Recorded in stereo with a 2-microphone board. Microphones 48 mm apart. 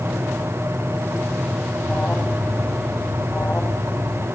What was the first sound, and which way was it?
An alarm, 30° left (ahead or behind).